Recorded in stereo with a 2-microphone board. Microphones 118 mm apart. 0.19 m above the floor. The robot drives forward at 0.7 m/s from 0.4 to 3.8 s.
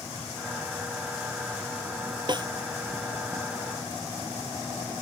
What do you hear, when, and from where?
2.3 s a snare drum: 40° right (ahead or behind)